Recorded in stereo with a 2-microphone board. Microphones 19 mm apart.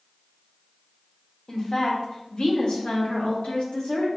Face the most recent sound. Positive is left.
turn(degrees=85)